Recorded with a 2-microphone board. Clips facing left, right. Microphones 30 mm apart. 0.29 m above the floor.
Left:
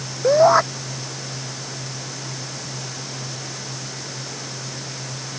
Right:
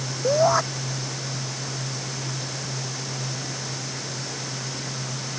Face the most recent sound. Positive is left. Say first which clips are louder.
# left 6 dB
turn(degrees=20)  # may be behind; listen again after turning